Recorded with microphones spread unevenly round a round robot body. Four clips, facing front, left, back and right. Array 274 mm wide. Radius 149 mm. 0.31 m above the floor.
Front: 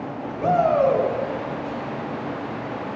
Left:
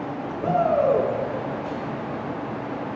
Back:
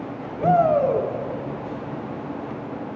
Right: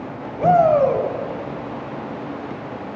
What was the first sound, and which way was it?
A shout, 105° right.